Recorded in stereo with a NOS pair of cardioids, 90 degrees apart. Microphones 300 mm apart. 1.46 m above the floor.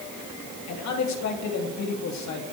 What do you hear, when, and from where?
0.7 s a man speaking: 65° left, 3 m